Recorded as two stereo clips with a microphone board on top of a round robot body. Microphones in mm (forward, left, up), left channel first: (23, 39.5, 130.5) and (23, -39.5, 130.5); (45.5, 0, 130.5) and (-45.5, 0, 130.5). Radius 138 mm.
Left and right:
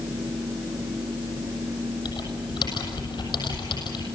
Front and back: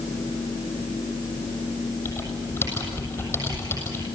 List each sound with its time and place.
2.0 s typing on a keyboard: 65° left, 6.5 m